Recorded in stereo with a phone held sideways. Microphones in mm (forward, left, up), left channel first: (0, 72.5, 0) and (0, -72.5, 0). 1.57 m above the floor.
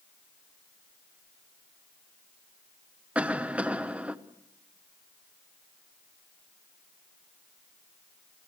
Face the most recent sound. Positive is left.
turn(degrees=-10)  # may be behind; listen again after turning